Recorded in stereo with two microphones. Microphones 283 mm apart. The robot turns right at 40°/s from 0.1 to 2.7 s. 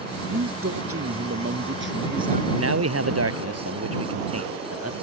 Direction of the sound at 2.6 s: 60° right (ahead or behind).